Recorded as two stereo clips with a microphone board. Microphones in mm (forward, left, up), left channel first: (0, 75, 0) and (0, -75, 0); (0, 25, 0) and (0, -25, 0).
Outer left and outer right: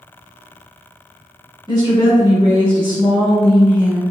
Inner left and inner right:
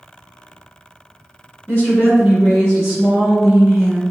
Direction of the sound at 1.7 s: 30° left (ahead or behind).